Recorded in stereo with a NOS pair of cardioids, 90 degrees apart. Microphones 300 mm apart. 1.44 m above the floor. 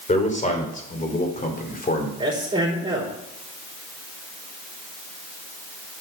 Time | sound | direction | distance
0.1 | a man speaking | 25° left | 5 m
2.2 | a man speaking | 15° right | 4.5 m